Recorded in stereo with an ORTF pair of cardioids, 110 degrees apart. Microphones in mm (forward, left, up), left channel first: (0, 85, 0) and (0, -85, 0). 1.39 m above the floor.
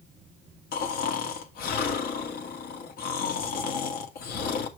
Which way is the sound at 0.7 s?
65° left.